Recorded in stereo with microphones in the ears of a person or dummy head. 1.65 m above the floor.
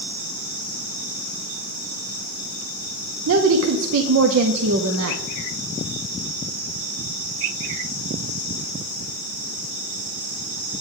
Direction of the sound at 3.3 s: 75° right (ahead or behind).